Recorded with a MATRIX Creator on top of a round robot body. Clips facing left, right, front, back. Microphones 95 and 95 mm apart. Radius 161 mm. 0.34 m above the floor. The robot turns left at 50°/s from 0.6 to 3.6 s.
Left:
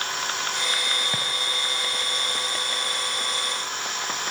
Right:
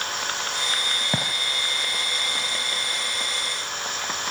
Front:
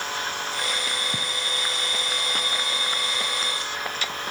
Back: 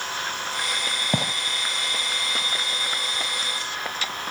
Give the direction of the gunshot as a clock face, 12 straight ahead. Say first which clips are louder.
Right 3 dB, back 6 dB; 5 o'clock.